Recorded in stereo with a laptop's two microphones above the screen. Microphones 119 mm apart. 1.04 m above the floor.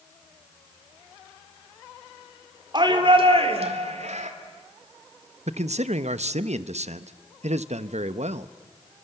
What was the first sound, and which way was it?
A shout, 40° right (ahead or behind).